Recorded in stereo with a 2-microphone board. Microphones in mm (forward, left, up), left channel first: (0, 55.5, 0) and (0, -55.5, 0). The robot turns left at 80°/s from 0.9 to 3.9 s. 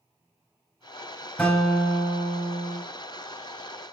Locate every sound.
1.4 s a guitar: 10° left, 3.5 m; by 2.8 s 105° right, 3.5 m